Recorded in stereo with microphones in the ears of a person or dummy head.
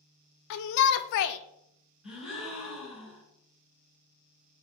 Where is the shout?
60° left (ahead or behind), 0.5 m.